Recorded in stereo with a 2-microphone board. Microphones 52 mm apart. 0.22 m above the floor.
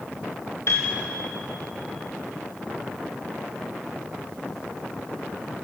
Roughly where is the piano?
Left.